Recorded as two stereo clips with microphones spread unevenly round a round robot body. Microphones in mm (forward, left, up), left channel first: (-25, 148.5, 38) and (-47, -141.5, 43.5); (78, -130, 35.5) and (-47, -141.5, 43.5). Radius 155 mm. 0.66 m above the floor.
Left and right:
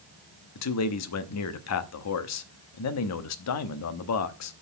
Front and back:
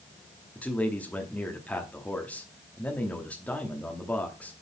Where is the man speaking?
85° left, 0.9 m.